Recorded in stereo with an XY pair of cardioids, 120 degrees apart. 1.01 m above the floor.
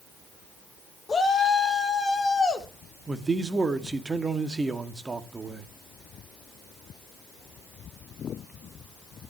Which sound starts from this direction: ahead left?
A shout, at 1.1 s.